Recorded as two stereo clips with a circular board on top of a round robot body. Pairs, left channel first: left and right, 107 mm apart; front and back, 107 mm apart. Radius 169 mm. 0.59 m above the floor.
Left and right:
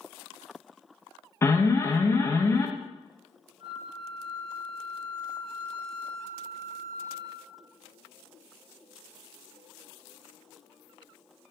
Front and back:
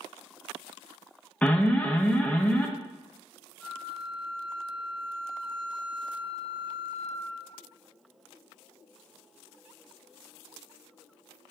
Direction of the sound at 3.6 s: 55° right.